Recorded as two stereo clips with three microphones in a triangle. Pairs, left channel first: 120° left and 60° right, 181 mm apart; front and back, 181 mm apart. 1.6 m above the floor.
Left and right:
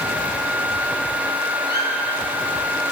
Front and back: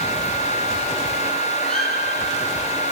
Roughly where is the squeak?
Right.